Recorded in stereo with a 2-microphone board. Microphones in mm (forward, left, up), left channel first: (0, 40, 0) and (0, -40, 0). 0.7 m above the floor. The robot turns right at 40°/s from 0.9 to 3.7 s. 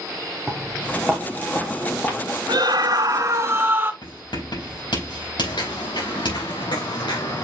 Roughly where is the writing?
Left.